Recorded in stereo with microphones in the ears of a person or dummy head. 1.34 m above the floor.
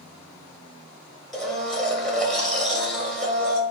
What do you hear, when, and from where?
1.3 s a blender: centre (ahead or behind), 1.6 m